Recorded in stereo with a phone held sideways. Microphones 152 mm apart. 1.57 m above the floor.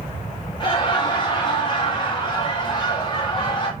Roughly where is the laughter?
Left.